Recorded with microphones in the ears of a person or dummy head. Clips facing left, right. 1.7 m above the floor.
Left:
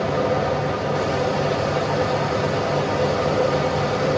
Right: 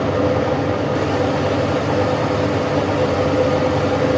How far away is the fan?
About 1.5 m.